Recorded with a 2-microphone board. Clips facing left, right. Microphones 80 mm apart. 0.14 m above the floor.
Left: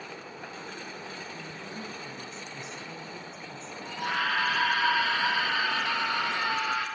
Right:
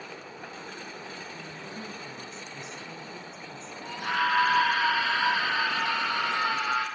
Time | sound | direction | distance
1.3 | a woman speaking | 5° right (ahead or behind) | 1.7 m
3.8 | a scream | 30° right (ahead or behind) | 5 m